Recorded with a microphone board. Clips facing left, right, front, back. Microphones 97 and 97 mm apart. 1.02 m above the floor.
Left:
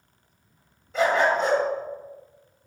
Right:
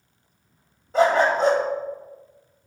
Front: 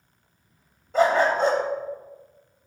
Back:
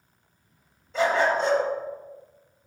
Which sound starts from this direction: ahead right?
A dog barking, at 0.9 s.